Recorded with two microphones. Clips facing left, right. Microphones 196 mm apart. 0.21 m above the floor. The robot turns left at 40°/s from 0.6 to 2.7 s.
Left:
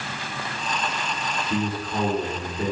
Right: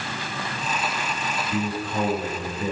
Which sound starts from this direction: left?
A man speaking, at 1.5 s.